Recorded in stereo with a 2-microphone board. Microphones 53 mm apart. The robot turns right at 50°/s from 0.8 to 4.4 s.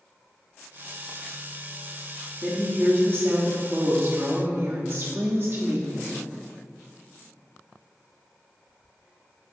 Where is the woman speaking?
155° right, 1.2 m; by 6.2 s 55° right, 1.2 m.